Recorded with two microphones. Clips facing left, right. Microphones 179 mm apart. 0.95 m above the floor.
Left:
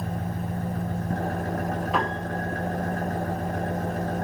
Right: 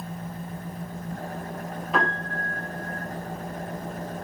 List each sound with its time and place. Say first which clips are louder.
0.0 s an engine running: left 5 dB; 75° left (ahead or behind), 1.7 m
1.9 s a piano: left 1 dB; centre (ahead or behind), 7 m